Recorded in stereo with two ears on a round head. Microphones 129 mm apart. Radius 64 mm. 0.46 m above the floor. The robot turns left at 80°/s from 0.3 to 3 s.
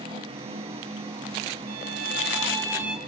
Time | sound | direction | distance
1.7 | a violin | 75° right | 3 m